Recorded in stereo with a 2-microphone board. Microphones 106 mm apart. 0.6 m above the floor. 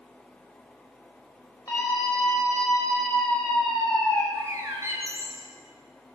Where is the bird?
25° right (ahead or behind), 3 m.